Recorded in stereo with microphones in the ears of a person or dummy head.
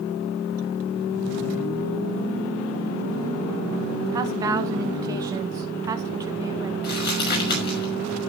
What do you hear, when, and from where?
4.1 s a woman speaking: 20° right (ahead or behind), 0.8 m
6.8 s crumpling: 60° left (ahead or behind), 5.5 m